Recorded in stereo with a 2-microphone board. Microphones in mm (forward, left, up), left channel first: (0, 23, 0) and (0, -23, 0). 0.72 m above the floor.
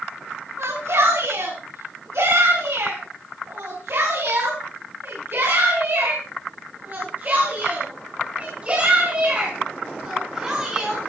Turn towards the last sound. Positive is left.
turn(degrees=-15)  # may be behind; listen again after turning